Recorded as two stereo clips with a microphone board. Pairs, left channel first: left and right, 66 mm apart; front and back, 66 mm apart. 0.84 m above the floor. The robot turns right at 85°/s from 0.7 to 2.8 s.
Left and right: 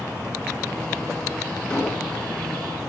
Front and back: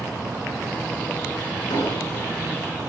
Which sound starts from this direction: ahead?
An explosion, at 1.7 s.